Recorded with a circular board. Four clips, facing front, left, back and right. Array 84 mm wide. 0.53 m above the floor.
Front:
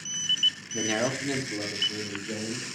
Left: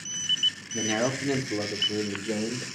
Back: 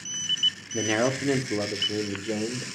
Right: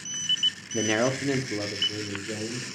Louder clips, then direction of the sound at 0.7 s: Right 3 dB, back 4 dB; 110° right.